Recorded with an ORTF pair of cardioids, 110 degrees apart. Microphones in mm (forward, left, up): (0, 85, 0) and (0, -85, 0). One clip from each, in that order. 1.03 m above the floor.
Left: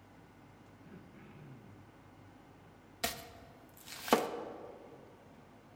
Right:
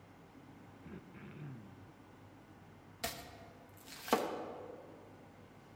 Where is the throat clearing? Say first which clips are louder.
Right 3 dB; 25° right, 0.6 m.